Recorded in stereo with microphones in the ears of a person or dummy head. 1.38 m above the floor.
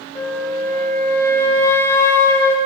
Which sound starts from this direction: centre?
A flute, at 0.1 s.